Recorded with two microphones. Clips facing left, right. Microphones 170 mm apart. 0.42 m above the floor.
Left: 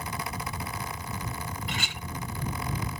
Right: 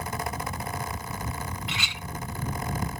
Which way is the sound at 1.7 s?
50° left (ahead or behind).